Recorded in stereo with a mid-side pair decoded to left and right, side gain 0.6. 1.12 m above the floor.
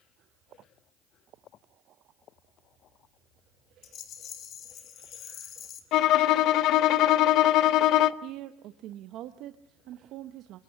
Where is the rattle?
55° left, 2.5 m.